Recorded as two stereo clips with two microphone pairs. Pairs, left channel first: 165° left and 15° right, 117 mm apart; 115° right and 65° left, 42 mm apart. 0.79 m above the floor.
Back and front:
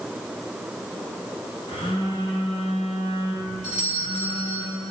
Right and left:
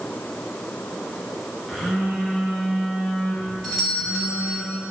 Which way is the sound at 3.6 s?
165° left.